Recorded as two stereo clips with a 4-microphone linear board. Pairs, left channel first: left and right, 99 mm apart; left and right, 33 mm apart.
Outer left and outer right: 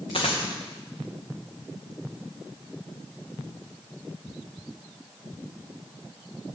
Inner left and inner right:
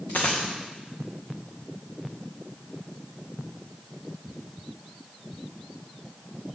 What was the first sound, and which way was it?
A dropped coin, 70° left (ahead or behind).